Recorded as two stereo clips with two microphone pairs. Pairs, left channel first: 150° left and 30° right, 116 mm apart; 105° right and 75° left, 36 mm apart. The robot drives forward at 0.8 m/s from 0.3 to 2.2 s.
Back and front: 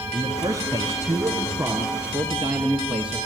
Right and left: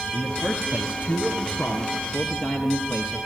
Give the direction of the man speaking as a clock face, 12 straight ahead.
3 o'clock.